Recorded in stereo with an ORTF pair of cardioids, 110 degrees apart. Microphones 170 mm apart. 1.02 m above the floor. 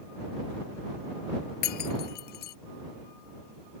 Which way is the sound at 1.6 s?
70° left.